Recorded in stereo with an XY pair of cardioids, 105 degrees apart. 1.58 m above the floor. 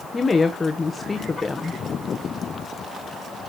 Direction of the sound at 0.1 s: 30° left.